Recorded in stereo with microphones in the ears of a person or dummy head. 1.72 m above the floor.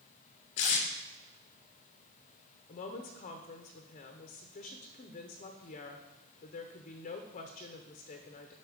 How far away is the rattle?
I don't hear a rattle.